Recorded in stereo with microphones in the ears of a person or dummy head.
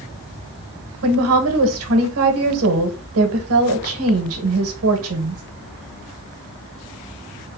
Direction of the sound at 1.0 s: 75° right (ahead or behind).